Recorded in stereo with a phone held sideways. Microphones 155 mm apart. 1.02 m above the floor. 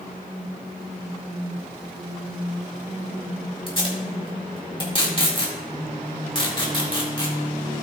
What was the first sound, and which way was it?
Tape being pulled, 35° left (ahead or behind).